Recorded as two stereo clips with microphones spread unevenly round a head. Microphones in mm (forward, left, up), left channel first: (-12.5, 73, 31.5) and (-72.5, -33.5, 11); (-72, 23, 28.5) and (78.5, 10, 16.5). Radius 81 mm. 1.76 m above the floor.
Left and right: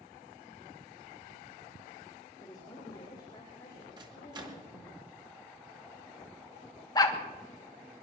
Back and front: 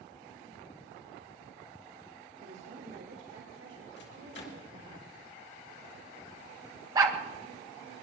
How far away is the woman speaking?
About 3 m.